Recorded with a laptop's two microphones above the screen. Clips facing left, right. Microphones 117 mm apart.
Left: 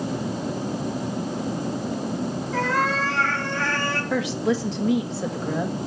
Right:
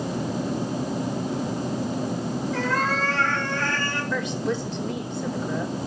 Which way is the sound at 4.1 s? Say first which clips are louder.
Left 4 dB; 75° left (ahead or behind).